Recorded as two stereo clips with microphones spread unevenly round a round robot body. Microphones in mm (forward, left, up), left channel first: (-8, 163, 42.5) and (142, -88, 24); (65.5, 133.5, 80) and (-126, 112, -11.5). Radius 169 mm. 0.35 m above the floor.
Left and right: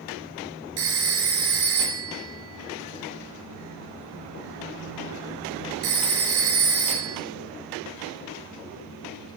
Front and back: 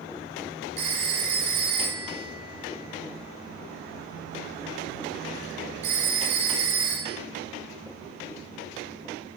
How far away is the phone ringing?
About 3 m.